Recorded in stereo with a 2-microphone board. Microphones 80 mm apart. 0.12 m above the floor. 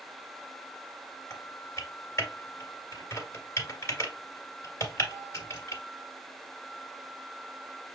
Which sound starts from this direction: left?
Typing on a keyboard, at 1.3 s.